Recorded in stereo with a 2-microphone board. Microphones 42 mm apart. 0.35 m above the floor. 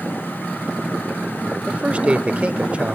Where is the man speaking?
30° right (ahead or behind), 1.0 m.